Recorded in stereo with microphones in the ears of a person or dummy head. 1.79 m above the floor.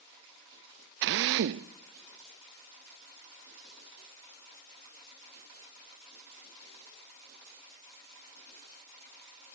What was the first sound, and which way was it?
A drill, 60° right (ahead or behind).